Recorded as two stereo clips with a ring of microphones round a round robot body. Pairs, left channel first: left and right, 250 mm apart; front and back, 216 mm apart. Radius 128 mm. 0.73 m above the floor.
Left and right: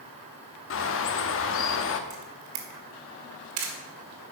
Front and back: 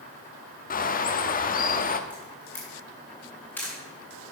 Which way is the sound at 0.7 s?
50° left.